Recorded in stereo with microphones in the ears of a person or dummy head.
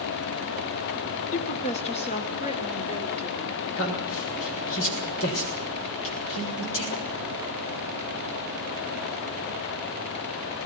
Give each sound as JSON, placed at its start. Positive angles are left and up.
{"t": 1.3, "sound": "a woman speaking", "side_deg": 40, "distance_m": 1.6}
{"t": 3.8, "sound": "a man speaking", "side_deg": 70, "distance_m": 7.0}